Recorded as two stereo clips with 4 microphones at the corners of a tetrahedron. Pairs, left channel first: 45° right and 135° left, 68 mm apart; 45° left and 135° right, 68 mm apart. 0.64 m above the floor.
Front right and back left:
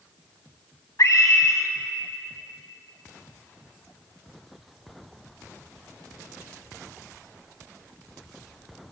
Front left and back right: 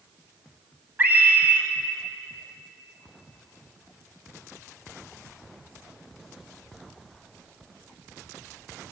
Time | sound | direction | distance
1.0 | a scream | 75° right | 4.5 m